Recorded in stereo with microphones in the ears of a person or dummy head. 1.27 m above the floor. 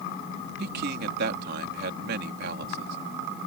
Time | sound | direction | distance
0.6 | a man speaking | 65° right (ahead or behind) | ?